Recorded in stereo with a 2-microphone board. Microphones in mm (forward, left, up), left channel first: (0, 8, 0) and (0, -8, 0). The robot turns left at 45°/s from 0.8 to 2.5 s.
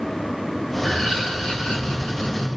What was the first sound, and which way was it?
Laughter, 145° left.